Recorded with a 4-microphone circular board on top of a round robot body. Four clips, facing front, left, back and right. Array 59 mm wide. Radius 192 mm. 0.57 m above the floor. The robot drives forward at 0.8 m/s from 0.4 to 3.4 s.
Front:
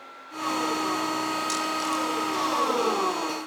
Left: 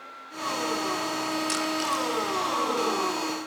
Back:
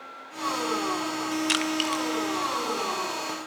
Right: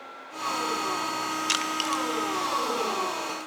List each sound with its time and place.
1.5 s crushing: 155° right, 1.1 m; by 2.0 s 160° right, 1.5 m